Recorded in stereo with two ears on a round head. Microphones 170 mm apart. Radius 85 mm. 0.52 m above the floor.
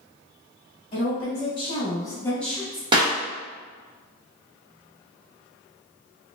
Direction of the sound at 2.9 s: 25° right (ahead or behind).